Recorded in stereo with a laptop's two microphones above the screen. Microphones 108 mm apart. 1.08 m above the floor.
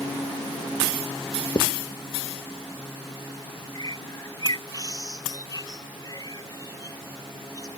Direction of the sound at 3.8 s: 35° left (ahead or behind).